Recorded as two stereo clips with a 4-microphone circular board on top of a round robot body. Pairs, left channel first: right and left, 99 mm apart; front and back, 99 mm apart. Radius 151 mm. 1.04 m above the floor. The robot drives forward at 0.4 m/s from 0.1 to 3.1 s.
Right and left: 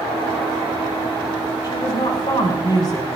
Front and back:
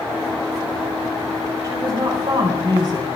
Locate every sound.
1.6 s a woman speaking: 130° right, 5.5 m; by 3.1 s 135° right, 6 m